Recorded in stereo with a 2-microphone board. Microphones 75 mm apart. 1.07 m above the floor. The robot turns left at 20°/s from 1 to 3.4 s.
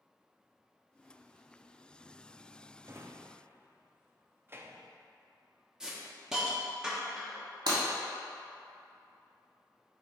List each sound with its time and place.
2.8 s a drawer: 35° right (ahead or behind), 0.5 m; by 4.9 s 30° right (ahead or behind), 0.5 m
5.8 s a hiss: 10° right (ahead or behind), 1.0 m
7.7 s breaking glass: 70° right (ahead or behind), 2 m